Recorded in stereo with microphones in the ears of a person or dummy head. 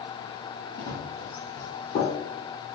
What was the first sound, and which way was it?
Running footsteps, 30° left (ahead or behind).